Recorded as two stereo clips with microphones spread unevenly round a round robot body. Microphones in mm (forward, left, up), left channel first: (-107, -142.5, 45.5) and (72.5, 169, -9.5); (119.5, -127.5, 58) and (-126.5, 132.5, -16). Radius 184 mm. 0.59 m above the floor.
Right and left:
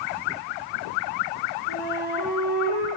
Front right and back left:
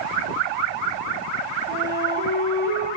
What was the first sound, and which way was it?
A flute, 165° right.